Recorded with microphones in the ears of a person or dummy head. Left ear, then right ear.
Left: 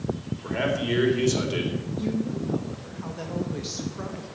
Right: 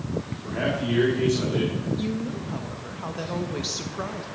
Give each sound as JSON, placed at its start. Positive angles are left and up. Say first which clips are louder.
{"t": 0.4, "sound": "a man speaking", "louder": "left 2 dB", "side_deg": 70, "distance_m": 3.5}
{"t": 2.0, "sound": "a woman speaking", "louder": "left 1 dB", "side_deg": -25, "distance_m": 1.2}